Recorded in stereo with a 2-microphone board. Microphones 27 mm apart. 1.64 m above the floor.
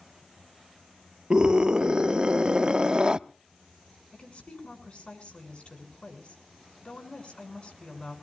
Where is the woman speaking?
45° left (ahead or behind), 6.5 m.